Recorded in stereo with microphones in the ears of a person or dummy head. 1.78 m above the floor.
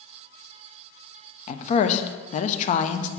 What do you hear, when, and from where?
1.5 s a woman speaking: 40° left (ahead or behind), 0.8 m